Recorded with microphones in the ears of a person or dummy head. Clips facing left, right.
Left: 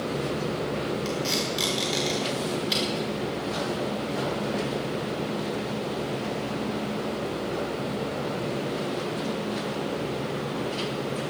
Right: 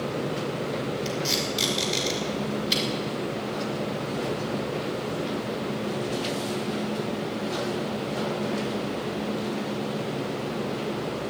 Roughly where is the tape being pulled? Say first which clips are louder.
Even; centre.